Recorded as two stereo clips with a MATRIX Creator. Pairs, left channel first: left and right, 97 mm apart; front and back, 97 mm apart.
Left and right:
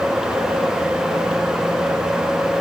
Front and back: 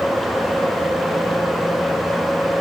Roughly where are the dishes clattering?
I don't hear dishes clattering.